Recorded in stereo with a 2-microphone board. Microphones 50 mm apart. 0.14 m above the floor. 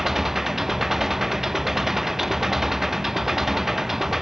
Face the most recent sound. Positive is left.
turn(degrees=-10)  # may be behind; listen again after turning